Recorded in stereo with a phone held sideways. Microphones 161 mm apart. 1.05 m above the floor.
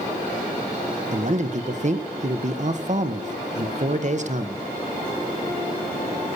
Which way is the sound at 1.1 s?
45° right (ahead or behind).